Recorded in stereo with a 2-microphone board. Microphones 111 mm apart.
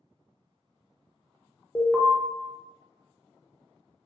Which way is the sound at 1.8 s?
10° left (ahead or behind).